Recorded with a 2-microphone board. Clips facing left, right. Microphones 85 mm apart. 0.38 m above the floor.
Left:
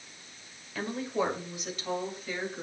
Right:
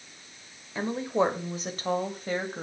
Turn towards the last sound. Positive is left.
turn(degrees=-50)  # may be behind; listen again after turning